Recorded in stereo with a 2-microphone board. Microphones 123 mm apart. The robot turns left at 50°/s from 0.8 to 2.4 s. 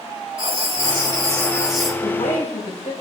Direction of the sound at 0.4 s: 130° right.